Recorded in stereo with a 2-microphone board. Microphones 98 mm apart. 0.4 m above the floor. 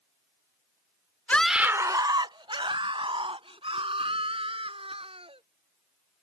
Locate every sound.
1.3 s a scream: 15° left (ahead or behind); by 5.4 s 75° right (ahead or behind)